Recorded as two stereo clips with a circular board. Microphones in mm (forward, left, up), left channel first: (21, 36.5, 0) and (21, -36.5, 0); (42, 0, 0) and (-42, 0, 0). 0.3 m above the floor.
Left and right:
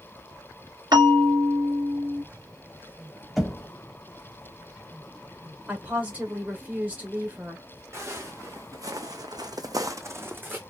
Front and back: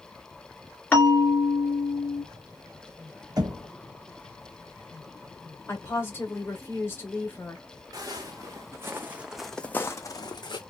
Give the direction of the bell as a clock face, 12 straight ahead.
2 o'clock.